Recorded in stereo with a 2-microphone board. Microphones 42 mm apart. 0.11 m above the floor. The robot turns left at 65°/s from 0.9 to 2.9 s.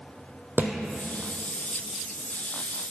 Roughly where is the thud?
Right.